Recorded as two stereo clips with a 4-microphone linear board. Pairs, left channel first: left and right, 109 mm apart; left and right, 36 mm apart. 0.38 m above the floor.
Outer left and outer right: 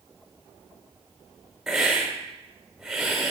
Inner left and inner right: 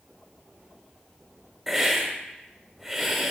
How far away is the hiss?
About 1.1 m.